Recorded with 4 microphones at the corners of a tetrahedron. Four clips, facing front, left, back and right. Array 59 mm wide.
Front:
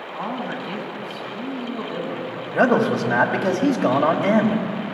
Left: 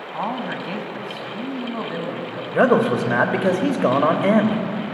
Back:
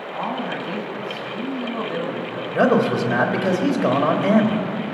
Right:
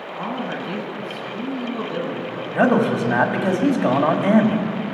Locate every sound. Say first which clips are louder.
0.1 s a man speaking: left 1 dB, back 2 dB; 95° left, 2 m; by 2.4 s 140° left, 2 m
2.5 s a man speaking: left 1 dB, even; 90° left, 1.4 m